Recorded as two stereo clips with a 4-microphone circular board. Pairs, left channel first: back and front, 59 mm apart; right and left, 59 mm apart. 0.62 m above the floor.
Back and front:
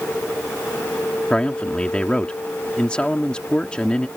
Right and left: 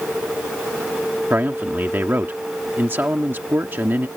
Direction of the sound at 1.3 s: 115° left.